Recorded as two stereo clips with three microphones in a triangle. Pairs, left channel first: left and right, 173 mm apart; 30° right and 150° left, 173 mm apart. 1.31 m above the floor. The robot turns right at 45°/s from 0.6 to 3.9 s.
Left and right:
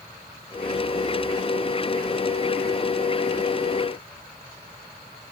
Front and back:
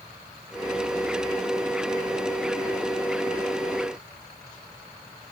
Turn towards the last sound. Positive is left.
No sound to turn to.